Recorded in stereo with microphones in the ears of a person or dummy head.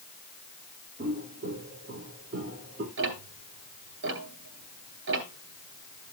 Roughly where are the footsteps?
Right.